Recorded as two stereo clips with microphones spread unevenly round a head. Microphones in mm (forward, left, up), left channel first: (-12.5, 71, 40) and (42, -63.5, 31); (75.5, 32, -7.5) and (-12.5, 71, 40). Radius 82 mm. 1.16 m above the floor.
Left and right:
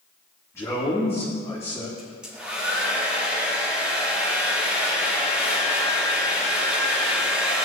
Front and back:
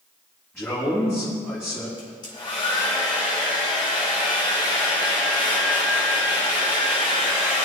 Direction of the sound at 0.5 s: 40° left.